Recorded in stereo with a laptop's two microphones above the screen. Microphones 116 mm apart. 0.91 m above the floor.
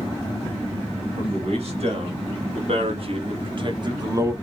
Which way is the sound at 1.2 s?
60° right (ahead or behind).